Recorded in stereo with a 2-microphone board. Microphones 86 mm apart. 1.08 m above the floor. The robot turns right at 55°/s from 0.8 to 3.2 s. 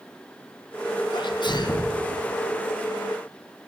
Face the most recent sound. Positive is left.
turn(degrees=-165)